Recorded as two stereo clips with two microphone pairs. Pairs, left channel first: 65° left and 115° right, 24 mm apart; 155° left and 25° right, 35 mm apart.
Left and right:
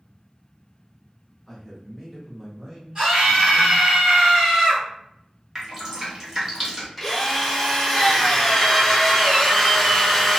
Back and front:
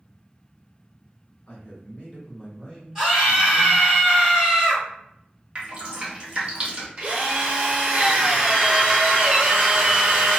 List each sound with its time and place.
1.5 s a man speaking: 150° left, 1.3 m; by 4.0 s 90° right, 1.2 m
3.0 s a scream: 95° right, 1.8 m
5.5 s dripping: 65° right, 0.9 m
7.0 s a drill: 45° right, 0.8 m